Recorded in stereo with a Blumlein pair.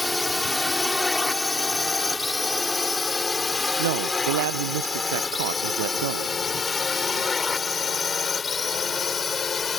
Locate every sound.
0.0 s a drone: 5° left; by 9.8 s 20° left
3.8 s a man speaking: 60° right